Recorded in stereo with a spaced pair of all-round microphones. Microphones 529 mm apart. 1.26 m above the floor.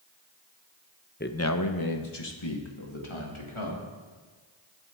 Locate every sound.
1.2 s a man speaking: 20° left (ahead or behind), 0.8 m; by 3.8 s 65° left (ahead or behind), 2.5 m